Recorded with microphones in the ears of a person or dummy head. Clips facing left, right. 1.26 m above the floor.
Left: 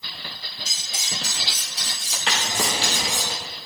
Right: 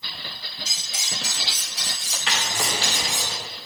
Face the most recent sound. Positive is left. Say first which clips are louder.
# left 2 dB
turn(degrees=25)  # may be behind; listen again after turning